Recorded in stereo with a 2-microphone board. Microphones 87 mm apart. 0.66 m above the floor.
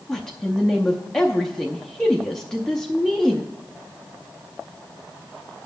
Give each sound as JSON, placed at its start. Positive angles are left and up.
{"t": 0.1, "sound": "a woman speaking", "side_deg": 5, "distance_m": 0.6}